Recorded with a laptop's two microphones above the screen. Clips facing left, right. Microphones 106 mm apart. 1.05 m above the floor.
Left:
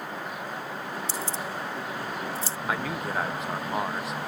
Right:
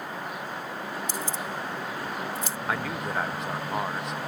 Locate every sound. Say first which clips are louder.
1.1 s keys jangling: even; 35° left (ahead or behind)
2.7 s a man speaking: left 1 dB; centre (ahead or behind)